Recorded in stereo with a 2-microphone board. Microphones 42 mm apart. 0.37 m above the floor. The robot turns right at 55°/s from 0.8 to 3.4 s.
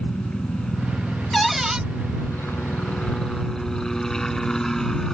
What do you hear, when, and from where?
0.0 s a helicopter: 25° left; by 5.2 s 165° left
1.3 s a cupboard door: 5° left (ahead or behind); by 1.8 s 20° right (ahead or behind)